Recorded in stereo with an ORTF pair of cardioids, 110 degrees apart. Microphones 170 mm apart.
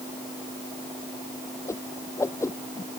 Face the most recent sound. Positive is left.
turn(degrees=15)